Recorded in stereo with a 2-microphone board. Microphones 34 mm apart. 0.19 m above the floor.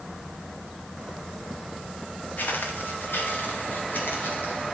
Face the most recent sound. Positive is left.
turn(degrees=90)